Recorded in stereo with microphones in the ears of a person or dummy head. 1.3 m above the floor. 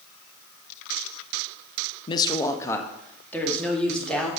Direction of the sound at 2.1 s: 30° left (ahead or behind).